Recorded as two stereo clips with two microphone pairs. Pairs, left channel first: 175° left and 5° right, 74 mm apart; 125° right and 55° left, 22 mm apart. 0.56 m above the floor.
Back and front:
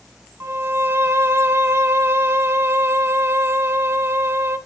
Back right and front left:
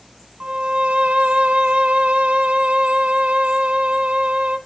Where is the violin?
50° left, 1.0 m.